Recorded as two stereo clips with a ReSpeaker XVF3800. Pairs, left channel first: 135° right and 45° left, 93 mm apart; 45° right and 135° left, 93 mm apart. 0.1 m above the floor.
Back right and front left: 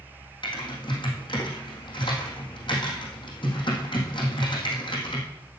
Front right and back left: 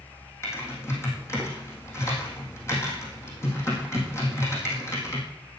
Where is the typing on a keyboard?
105° right, 4 m.